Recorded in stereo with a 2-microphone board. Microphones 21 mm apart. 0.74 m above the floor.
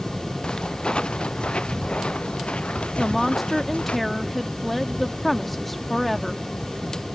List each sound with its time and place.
0.4 s footsteps: 50° left (ahead or behind); by 4.0 s 85° left
3.0 s a woman speaking: 5° left (ahead or behind)